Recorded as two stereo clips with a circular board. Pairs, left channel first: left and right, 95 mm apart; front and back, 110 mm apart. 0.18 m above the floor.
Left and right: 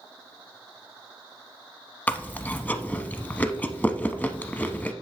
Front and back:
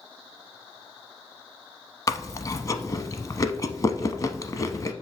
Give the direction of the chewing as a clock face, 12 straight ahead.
11 o'clock.